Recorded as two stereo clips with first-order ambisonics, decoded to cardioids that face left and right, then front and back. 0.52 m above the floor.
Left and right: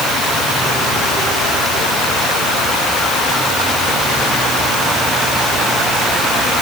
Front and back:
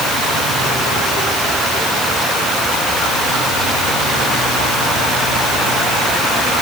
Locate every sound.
Only background noise.